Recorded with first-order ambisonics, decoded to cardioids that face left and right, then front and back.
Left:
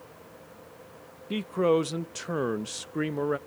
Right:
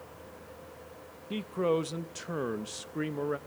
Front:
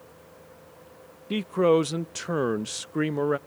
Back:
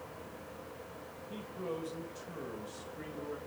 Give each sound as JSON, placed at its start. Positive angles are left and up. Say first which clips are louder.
{"t": 1.3, "sound": "a man speaking", "louder": "left 5 dB, front 20 dB", "azimuth_deg": 15, "distance_m": 0.6}